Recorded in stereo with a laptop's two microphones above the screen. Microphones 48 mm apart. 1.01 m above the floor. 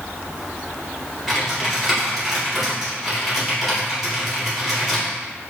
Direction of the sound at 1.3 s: 5° right (ahead or behind).